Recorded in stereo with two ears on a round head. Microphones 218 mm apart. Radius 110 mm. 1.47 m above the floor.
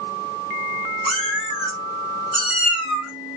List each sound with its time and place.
1.1 s a cat meowing: 55° right (ahead or behind), 1.5 m; by 3.1 s 25° right (ahead or behind), 2.0 m